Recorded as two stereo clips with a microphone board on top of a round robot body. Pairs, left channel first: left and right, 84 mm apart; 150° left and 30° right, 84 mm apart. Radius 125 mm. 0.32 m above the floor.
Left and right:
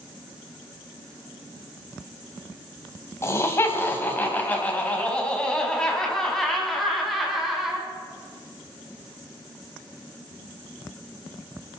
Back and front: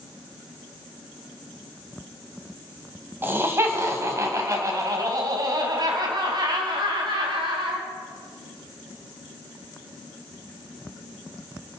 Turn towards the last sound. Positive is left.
turn(degrees=-5)